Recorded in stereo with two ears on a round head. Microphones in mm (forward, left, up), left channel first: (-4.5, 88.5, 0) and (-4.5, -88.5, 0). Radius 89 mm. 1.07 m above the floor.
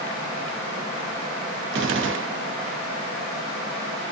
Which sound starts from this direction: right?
A gunshot, at 1.7 s.